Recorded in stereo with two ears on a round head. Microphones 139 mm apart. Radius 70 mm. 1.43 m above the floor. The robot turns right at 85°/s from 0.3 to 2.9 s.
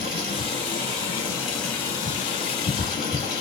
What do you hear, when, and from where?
0.0 s running water: 105° right, 1.6 m; by 3.4 s 120° left, 1.6 m